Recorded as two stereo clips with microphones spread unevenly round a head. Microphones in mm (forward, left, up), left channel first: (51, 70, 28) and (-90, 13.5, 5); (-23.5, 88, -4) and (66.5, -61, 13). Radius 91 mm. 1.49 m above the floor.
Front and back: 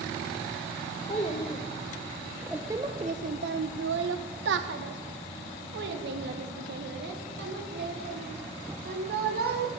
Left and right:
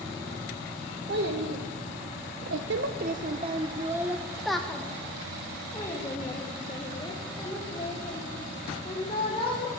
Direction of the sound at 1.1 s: 35° right.